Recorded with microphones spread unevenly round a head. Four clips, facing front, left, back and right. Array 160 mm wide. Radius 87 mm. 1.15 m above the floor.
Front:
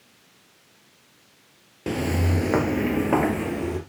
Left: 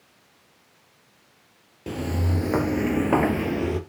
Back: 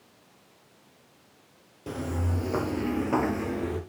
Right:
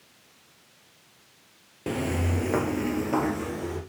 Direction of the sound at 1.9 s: 20° right.